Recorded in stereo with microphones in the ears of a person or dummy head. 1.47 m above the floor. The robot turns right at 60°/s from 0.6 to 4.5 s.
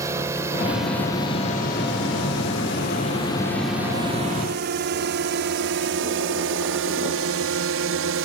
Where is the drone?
15° right (ahead or behind); by 8.2 s 70° right (ahead or behind).